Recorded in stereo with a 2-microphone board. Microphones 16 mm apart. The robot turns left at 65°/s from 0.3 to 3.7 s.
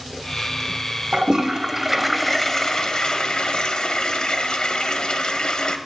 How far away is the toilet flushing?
About 0.6 m.